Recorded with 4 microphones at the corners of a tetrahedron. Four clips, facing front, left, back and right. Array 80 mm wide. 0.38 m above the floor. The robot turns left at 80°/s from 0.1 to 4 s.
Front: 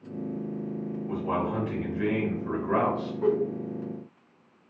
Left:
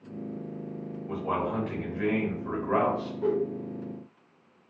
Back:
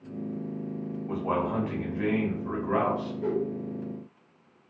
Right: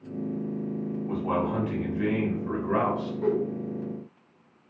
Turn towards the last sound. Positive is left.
turn(degrees=-70)